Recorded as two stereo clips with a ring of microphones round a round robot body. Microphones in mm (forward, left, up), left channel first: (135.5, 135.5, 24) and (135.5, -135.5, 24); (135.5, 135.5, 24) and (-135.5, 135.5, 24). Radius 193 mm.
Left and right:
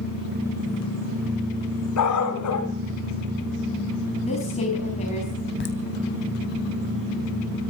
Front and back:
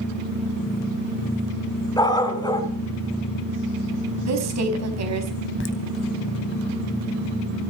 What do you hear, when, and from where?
2.0 s a dog barking: 75° left, 2.5 m
4.2 s a woman speaking: 165° left, 3.5 m
5.6 s laughter: 40° left, 3 m